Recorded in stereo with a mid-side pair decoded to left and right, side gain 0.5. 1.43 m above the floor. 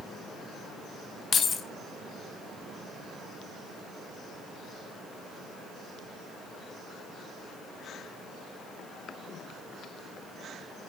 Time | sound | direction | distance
1.3 | keys jangling | 40° left | 1.8 m